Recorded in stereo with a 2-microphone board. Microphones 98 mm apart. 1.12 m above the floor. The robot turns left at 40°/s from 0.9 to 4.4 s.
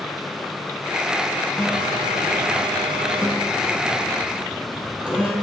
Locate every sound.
1.6 s a phone buzzing: 55° right, 2 m; by 5.3 s 170° right, 2 m